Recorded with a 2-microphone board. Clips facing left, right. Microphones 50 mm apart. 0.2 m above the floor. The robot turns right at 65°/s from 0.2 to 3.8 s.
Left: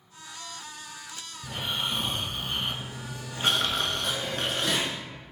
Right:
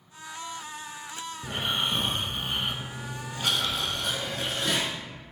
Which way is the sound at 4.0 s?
5° right (ahead or behind).